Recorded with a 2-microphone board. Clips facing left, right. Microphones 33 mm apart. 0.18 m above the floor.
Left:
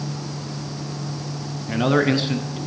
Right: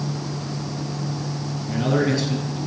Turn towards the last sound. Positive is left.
turn(degrees=35)  # may be behind; listen again after turning